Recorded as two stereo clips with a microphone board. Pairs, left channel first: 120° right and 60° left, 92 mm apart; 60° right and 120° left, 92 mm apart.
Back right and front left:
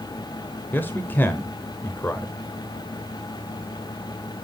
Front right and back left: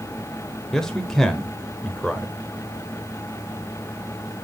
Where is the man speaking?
135° right, 0.9 m.